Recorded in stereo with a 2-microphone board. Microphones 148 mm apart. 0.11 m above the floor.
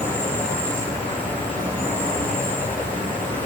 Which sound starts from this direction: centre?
An insect, at 0.0 s.